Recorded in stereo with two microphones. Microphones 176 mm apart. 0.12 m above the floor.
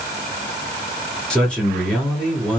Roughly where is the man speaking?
Centre.